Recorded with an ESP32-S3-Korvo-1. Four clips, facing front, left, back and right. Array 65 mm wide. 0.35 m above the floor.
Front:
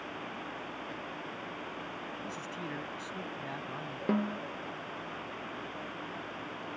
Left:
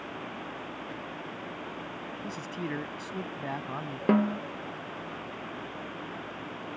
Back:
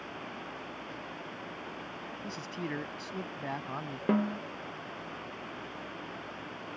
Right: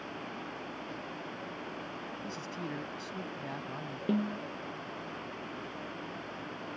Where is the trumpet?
I don't hear a trumpet.